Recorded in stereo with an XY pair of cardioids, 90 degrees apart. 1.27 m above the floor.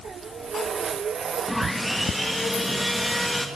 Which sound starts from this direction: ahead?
Sawing, at 1.5 s.